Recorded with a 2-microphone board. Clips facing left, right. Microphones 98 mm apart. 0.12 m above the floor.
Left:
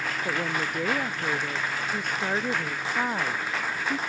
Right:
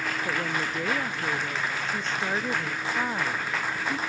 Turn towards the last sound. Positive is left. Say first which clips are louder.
# left 2 dB
turn(degrees=10)  # may be behind; listen again after turning